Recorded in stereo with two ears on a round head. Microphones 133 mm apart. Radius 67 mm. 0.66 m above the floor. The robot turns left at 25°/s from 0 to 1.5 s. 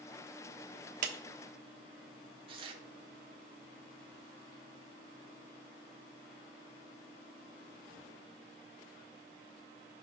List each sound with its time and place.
1.0 s a clap: 55° right (ahead or behind), 1.2 m
2.5 s tearing paper: 40° right (ahead or behind), 1.5 m